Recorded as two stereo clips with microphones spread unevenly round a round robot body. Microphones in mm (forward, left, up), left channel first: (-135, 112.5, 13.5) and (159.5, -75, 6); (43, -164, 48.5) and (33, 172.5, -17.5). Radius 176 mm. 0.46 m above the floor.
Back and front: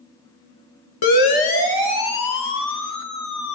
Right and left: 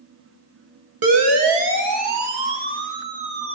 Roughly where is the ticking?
No ticking in this recording.